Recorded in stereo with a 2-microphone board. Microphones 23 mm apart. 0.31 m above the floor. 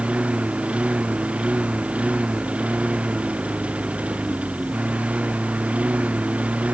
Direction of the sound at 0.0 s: 60° right (ahead or behind).